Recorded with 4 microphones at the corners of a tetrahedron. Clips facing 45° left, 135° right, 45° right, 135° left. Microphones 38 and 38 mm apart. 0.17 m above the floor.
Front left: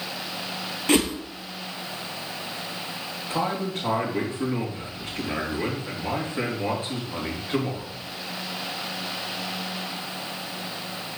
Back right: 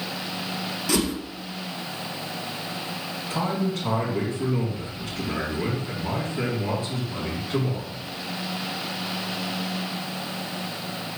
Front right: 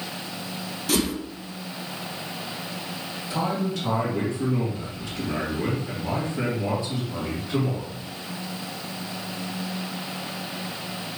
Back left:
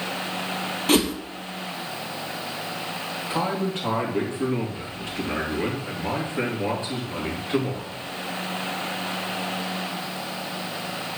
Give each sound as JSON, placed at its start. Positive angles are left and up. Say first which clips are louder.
{"t": 0.9, "sound": "a whoosh", "louder": "front left 3 dB, back left 4 dB", "azimuth_deg": 90, "distance_m": 1.1}
{"t": 3.3, "sound": "a man speaking", "louder": "even, even", "azimuth_deg": 85, "distance_m": 3.5}